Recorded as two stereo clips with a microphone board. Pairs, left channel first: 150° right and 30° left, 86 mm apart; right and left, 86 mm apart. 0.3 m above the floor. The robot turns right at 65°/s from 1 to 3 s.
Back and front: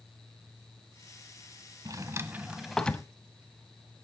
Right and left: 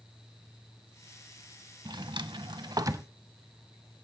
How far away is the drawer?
About 0.7 m.